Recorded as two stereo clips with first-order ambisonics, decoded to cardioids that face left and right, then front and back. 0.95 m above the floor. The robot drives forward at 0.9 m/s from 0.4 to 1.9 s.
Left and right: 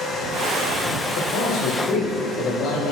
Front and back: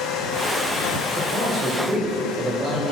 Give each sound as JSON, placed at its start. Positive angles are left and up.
{"t": 1.1, "sound": "a man speaking", "azimuth_deg": 115, "distance_m": 4.5}